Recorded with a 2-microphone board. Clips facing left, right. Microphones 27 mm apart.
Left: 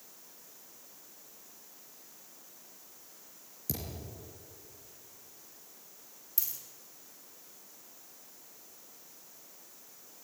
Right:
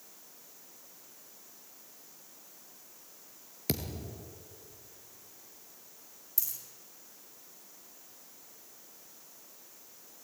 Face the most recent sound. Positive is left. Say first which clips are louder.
# even
turn(degrees=25)  # may be behind; listen again after turning